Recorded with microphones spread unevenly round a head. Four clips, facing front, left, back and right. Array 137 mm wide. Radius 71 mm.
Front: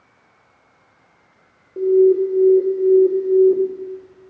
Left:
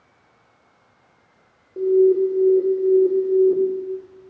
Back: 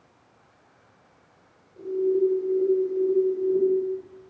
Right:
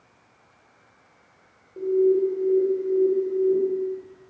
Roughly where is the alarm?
Ahead left.